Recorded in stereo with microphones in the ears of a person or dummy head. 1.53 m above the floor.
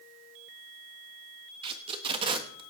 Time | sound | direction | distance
1.6 | tape being pulled | 30° right (ahead or behind) | 1.4 m